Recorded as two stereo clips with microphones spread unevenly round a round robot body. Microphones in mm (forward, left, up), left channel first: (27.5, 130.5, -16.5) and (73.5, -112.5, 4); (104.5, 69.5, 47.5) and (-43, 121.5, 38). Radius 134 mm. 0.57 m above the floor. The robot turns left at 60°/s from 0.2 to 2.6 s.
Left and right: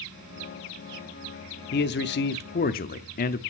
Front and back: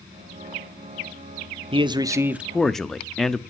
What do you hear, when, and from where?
1.7 s a man speaking: 125° left, 0.7 m; by 3.4 s 70° left, 0.7 m